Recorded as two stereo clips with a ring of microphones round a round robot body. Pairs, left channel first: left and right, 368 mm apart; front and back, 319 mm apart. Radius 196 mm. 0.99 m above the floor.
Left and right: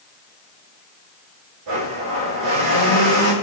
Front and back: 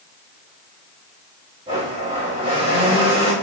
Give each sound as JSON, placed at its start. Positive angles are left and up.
{"t": 1.7, "sound": "a blender", "azimuth_deg": -105, "distance_m": 5.5}